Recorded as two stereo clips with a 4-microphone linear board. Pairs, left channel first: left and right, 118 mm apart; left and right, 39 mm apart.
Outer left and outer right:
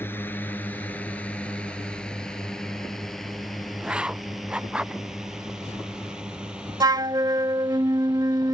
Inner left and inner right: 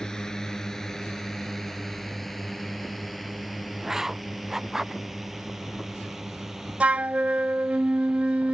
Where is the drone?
15° left (ahead or behind); by 8.6 s 10° right (ahead or behind).